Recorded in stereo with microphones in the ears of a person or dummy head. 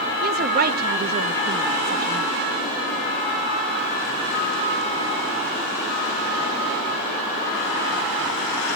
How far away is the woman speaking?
About 0.9 m.